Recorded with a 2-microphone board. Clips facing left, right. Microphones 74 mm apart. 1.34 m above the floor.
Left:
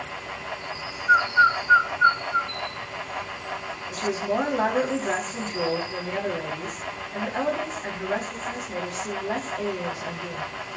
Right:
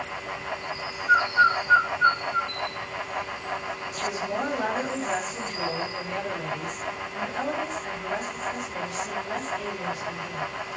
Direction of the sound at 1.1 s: 20° left (ahead or behind).